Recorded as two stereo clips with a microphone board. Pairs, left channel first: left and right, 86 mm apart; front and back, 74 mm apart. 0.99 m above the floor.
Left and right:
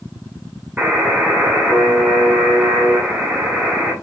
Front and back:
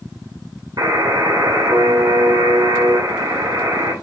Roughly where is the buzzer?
Behind.